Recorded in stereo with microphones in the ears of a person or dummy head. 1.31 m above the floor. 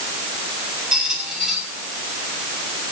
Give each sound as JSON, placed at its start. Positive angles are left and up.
{"t": 0.9, "sound": "a squeak", "side_deg": -5, "distance_m": 7.0}